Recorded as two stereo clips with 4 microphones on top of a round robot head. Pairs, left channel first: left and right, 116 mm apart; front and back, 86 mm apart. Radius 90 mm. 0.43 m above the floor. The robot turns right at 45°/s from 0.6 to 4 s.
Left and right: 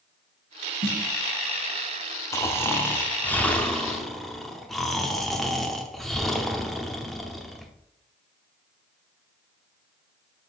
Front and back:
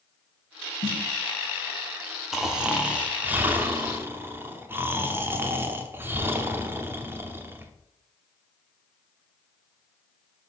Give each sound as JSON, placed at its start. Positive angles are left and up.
{"t": 0.8, "sound": "a snare drum", "azimuth_deg": -45, "distance_m": 2.5}
{"t": 2.3, "sound": "snoring", "azimuth_deg": 100, "distance_m": 0.9}